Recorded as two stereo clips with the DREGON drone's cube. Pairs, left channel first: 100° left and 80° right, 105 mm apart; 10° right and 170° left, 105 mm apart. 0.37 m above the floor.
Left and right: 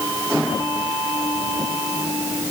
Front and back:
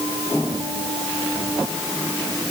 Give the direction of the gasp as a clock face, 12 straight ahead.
No gasp in this recording.